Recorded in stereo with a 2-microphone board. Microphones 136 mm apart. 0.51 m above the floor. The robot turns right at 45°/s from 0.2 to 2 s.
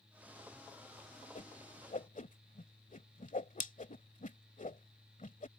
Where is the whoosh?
70° left (ahead or behind).